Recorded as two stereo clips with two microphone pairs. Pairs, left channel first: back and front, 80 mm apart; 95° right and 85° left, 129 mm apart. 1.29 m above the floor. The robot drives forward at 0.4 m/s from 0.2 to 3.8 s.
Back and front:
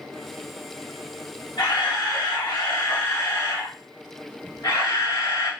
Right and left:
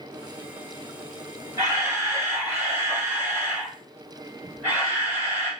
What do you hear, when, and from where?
1.6 s a camera shutter: 150° left, 1.5 m; by 5.5 s 160° left, 2.5 m